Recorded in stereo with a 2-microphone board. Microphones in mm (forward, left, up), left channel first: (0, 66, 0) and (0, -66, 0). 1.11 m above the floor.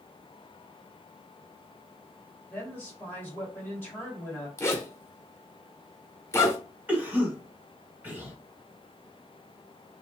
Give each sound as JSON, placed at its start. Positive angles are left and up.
{"t": 2.5, "sound": "a woman speaking", "side_deg": 10, "distance_m": 1.6}
{"t": 4.6, "sound": "a zipper", "side_deg": 20, "distance_m": 0.8}
{"t": 6.9, "sound": "a cough", "side_deg": -15, "distance_m": 1.8}